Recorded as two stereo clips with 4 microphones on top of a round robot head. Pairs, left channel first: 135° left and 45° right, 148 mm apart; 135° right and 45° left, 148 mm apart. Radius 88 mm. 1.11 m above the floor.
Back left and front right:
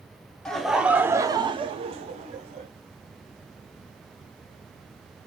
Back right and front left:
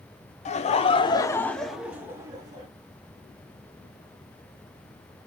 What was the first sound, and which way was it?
Laughter, 145° right.